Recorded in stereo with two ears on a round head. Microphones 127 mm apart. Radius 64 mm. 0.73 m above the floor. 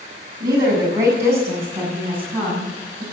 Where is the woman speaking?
30° right (ahead or behind), 6 m; by 3.0 s 5° right (ahead or behind), 8 m.